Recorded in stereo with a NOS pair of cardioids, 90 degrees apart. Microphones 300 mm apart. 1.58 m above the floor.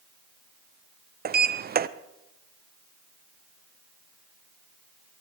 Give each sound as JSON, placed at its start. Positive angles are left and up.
{"t": 1.2, "sound": "a sliding door", "azimuth_deg": -30, "distance_m": 0.7}